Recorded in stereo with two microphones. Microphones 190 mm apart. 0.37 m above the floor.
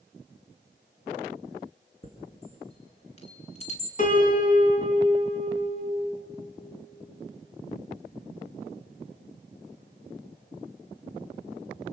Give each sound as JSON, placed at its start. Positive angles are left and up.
{"t": 2.0, "sound": "a chime", "side_deg": 35, "distance_m": 2.5}
{"t": 4.0, "sound": "a piano", "side_deg": 45, "distance_m": 4.0}